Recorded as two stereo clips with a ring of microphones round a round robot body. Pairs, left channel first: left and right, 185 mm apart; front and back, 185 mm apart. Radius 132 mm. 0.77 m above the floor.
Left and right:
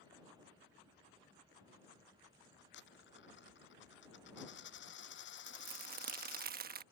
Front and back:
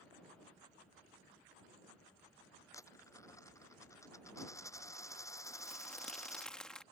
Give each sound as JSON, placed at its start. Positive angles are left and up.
{"t": 2.7, "sound": "a dropped coin", "azimuth_deg": 75}
{"t": 5.5, "sound": "crumpling", "azimuth_deg": -85}